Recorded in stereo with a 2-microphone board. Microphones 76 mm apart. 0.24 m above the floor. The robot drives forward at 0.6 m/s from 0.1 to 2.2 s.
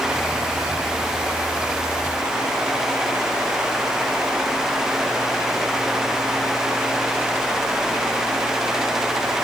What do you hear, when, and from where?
Only background noise.